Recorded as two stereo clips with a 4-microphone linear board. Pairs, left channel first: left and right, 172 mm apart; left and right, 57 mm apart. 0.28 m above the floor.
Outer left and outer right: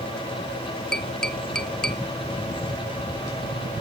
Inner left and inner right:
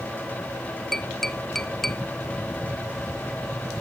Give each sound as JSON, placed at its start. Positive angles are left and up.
{"t": 0.9, "sound": "tapping", "side_deg": 5, "distance_m": 0.9}